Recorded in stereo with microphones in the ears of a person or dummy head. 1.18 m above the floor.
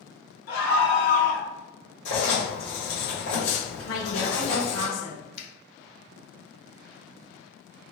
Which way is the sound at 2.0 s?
65° left (ahead or behind).